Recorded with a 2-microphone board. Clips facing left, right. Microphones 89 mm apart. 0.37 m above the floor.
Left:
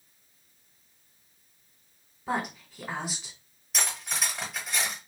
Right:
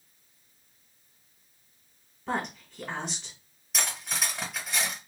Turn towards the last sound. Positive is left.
turn(degrees=0)  # may be behind; listen again after turning